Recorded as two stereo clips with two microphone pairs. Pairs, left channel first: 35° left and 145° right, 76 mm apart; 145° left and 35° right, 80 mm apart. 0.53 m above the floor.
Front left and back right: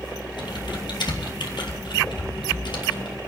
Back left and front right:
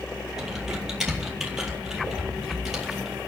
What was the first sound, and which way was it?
Typing on a keyboard, 50° left.